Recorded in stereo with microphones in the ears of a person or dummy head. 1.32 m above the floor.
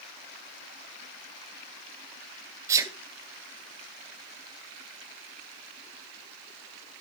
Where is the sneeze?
15° right (ahead or behind), 0.8 m.